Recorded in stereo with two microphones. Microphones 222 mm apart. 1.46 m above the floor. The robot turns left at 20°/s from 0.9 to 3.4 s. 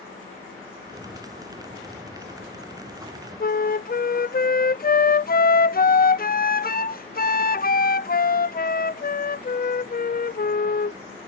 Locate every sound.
3.4 s a flute: 45° left (ahead or behind)